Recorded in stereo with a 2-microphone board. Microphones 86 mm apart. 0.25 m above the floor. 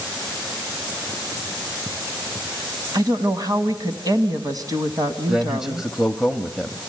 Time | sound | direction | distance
2.9 | a woman speaking | 50° right (ahead or behind) | 1.5 m
5.3 | a man speaking | 5° right (ahead or behind) | 0.9 m